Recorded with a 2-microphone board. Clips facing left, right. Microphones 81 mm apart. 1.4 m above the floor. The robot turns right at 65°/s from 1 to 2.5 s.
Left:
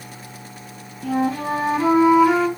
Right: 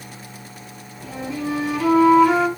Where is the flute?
90° left, 2 m; by 2.5 s 175° right, 2 m.